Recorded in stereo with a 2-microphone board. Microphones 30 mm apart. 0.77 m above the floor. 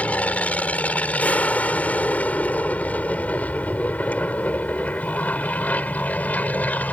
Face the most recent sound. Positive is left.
turn(degrees=55)  # may be behind; listen again after turning